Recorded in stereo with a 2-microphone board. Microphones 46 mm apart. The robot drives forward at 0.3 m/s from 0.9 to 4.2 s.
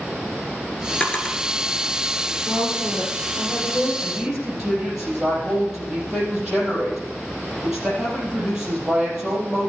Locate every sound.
1.0 s a drawer: 30° left (ahead or behind), 1.5 m; by 1.4 s 25° left (ahead or behind), 1.6 m
2.5 s a woman speaking: 10° right (ahead or behind), 5 m
4.0 s a woman speaking: 10° right (ahead or behind), 4 m